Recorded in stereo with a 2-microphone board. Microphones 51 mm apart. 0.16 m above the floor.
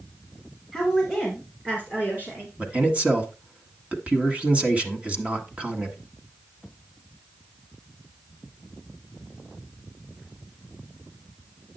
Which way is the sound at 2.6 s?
25° right (ahead or behind).